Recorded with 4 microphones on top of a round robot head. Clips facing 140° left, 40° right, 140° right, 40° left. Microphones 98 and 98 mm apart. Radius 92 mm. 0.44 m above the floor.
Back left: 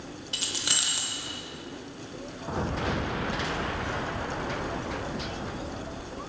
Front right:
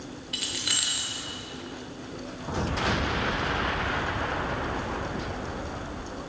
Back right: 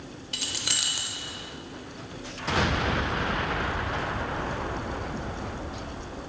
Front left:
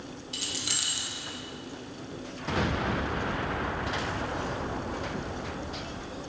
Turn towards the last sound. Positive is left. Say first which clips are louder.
# back left 1 dB, back right 3 dB
turn(degrees=-165)